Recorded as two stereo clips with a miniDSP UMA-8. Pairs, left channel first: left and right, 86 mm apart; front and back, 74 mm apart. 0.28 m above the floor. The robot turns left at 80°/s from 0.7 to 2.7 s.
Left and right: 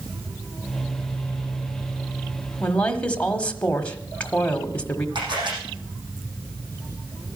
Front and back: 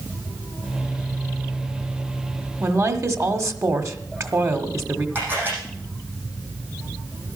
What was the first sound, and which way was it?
A woman speaking, 170° left.